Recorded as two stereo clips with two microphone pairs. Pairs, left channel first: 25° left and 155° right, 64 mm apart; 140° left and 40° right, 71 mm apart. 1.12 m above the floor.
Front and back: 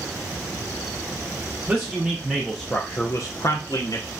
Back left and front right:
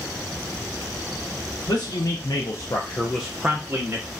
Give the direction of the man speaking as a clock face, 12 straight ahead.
8 o'clock.